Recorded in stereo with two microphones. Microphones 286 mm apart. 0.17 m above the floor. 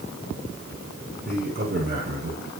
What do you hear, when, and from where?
1.2 s a man speaking: 30° right (ahead or behind), 9.5 m; by 2.5 s 35° right (ahead or behind), 10 m